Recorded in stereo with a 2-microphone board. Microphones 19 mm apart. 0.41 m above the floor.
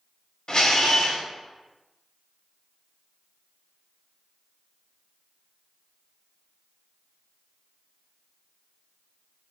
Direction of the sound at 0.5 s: 50° left (ahead or behind).